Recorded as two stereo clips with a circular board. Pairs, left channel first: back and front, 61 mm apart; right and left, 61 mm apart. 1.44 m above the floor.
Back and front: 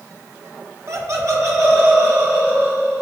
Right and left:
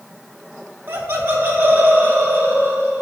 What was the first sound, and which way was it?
Laughter, 35° left.